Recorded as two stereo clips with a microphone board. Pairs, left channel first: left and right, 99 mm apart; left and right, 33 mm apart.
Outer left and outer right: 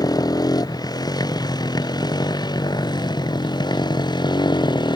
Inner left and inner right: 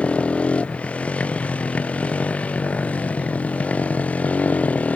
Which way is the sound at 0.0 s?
40° left (ahead or behind).